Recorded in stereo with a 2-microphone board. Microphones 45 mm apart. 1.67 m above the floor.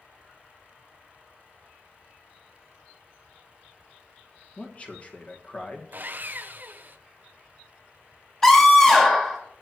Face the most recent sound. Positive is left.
turn(degrees=15)  # may be behind; listen again after turning